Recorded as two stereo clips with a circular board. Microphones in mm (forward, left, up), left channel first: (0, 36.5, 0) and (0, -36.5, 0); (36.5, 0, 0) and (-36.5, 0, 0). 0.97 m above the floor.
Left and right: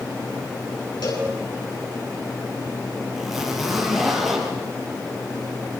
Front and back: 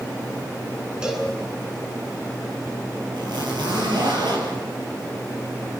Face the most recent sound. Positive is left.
turn(degrees=180)